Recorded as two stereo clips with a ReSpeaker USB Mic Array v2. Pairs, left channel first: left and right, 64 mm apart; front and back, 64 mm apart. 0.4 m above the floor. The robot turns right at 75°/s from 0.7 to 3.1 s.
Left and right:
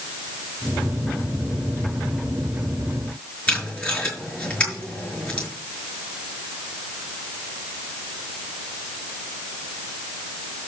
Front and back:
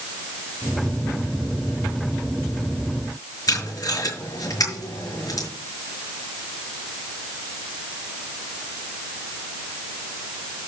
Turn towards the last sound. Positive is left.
turn(degrees=20)